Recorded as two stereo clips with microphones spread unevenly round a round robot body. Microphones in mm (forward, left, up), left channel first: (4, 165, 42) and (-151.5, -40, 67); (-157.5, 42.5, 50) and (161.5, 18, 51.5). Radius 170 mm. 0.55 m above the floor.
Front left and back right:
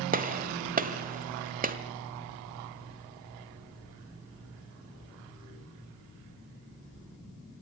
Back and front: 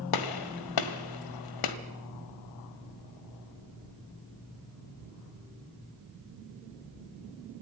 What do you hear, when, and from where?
0.1 s a gunshot: 175° left, 1.7 m